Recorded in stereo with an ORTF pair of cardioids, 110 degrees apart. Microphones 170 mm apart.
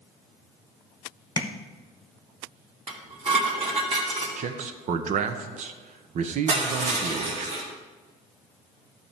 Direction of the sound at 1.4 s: 20° left.